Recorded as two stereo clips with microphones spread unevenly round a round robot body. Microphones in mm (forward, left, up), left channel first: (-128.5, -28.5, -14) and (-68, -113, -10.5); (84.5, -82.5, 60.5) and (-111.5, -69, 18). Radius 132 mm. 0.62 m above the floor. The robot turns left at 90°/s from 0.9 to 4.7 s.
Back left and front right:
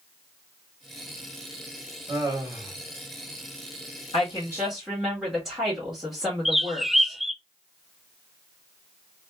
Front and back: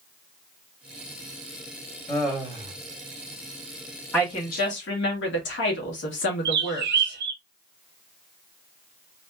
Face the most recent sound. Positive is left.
turn(degrees=-145)